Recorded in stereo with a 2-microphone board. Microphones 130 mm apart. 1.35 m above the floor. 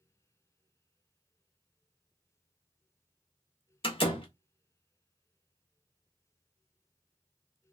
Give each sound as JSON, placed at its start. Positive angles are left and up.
{"t": 3.8, "sound": "a door slam", "side_deg": 40, "distance_m": 1.0}